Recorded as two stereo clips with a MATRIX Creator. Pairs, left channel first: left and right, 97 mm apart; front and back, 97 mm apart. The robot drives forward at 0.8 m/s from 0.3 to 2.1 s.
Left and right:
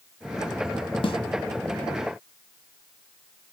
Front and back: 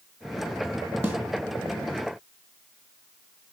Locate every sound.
1.0 s a snare drum: 110° left, 1.4 m; by 1.2 s 115° left, 1.4 m